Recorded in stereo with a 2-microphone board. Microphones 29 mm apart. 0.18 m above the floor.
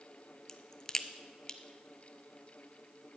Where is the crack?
20° left (ahead or behind), 0.6 m.